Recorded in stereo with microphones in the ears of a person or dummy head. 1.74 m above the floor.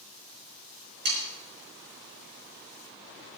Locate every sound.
1.1 s sawing: 65° right (ahead or behind), 6 m